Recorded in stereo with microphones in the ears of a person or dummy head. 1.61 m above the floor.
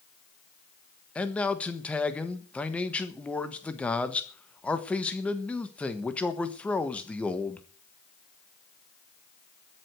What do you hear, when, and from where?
1.1 s a man speaking: 5° left (ahead or behind), 1.4 m